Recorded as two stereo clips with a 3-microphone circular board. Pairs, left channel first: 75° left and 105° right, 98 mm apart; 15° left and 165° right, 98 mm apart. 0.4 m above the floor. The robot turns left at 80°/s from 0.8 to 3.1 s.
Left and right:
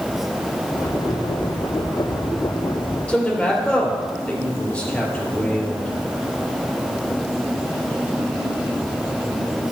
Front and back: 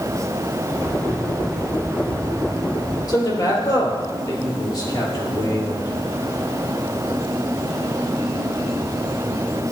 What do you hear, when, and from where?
3.1 s a man speaking: 5° left, 2 m; by 5.9 s straight ahead, 2 m